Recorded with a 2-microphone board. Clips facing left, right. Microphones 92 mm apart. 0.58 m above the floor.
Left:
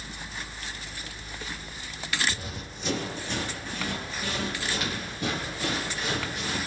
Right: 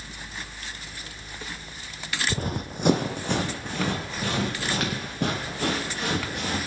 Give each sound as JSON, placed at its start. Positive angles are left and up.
{"t": 2.3, "sound": "running footsteps", "side_deg": -45, "distance_m": 0.7}